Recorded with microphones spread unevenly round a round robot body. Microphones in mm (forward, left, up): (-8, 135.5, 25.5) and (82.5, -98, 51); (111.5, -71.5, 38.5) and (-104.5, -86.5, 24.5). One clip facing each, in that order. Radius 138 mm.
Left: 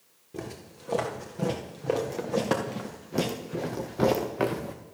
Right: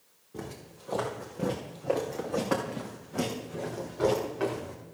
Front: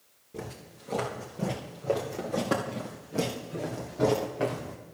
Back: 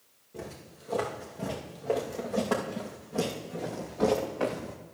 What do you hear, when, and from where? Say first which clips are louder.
0.3 s footsteps: left 2 dB, front 1 dB; 65° left, 3.5 m; by 4.8 s 95° left, 1.7 m